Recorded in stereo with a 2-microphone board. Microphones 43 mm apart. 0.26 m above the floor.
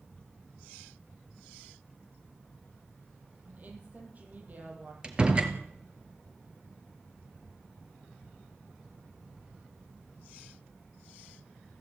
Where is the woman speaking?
40° right (ahead or behind), 10 m.